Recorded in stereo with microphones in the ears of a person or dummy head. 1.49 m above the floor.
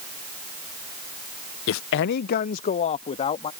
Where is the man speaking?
75° left (ahead or behind); by 3.5 s 25° left (ahead or behind).